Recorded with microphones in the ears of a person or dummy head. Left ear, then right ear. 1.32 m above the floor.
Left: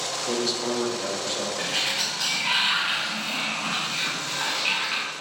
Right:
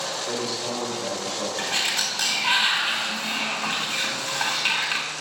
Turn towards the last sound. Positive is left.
turn(degrees=-40)  # may be behind; listen again after turning